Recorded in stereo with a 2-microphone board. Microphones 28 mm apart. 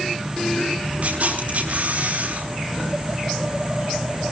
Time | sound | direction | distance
1.0 | a camera shutter | 65° right (ahead or behind) | 3 m